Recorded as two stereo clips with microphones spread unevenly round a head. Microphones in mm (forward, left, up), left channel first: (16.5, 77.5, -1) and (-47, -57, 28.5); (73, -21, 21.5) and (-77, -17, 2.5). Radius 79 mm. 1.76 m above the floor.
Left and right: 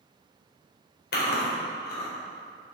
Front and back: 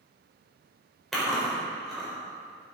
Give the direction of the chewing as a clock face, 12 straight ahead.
9 o'clock.